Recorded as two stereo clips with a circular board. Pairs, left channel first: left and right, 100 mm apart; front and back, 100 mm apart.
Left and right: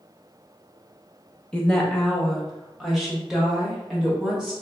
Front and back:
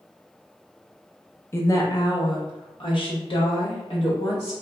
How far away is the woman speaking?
About 0.6 m.